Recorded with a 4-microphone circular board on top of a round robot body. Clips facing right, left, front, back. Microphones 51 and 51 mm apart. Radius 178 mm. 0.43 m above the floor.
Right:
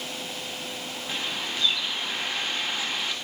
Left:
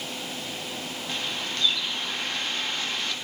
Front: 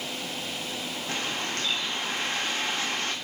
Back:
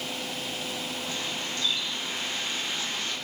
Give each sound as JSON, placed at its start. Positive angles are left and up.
{"t": 1.1, "sound": "a bird", "azimuth_deg": -10, "distance_m": 2.0}